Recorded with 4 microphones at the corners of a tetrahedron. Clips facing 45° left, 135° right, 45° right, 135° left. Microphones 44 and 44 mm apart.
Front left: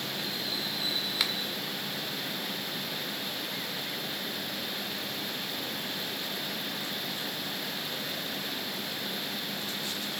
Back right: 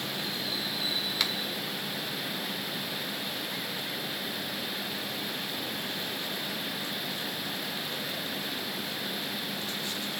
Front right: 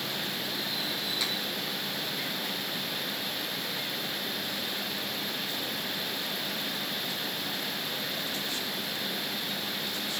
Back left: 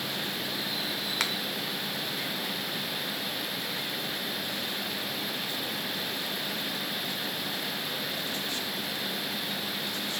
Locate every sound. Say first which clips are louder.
1.2 s a finger snap: even, back left 4 dB; 130° left, 1.7 m